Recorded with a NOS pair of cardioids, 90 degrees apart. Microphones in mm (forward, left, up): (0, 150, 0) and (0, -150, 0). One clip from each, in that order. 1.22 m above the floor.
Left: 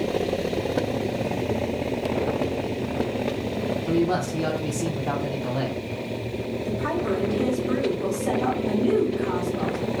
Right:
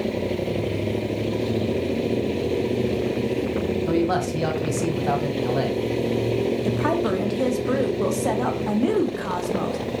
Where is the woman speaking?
60° right, 0.8 m.